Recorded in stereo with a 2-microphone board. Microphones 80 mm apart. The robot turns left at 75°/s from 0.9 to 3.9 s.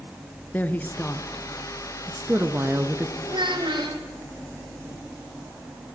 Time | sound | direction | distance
0.5 | a woman speaking | 20° left (ahead or behind) | 1.2 m
3.3 | a child speaking | 65° right | 3 m